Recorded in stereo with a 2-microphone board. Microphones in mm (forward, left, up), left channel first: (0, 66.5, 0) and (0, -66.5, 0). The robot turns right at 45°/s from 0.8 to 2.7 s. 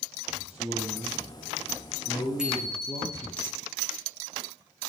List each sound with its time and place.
0.3 s a man speaking: 55° right, 6 m; by 3.4 s 30° left, 6 m
2.4 s a bicycle bell: 5° right (ahead or behind), 9 m; by 3.2 s 5° left (ahead or behind), 9 m